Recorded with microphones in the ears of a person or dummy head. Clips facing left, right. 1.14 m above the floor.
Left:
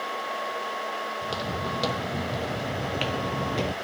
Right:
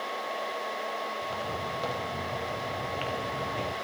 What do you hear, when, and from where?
1.2 s footsteps: 55° left (ahead or behind), 2.5 m